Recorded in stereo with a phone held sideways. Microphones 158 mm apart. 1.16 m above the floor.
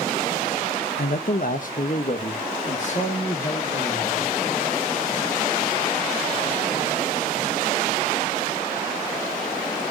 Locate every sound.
1.0 s a man speaking: 75° left (ahead or behind), 0.7 m; by 4.4 s 45° left (ahead or behind), 3 m